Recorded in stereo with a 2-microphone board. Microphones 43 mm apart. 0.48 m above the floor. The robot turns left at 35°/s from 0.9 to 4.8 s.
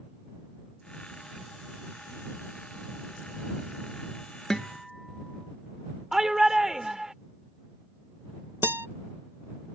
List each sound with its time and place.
4.5 s a guitar: 10° left (ahead or behind); by 5.5 s centre (ahead or behind)
6.1 s a shout: 10° right (ahead or behind)
8.6 s a guitar: 60° right (ahead or behind)